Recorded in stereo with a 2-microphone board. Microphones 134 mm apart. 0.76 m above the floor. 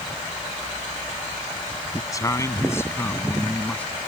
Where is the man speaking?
25° left (ahead or behind); by 3.9 s 10° left (ahead or behind).